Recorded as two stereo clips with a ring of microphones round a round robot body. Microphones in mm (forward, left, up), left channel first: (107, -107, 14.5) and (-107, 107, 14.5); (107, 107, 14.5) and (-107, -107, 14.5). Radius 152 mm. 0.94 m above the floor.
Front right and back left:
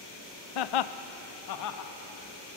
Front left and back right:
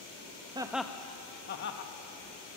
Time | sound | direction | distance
0.6 | laughter | 60° right | 0.6 m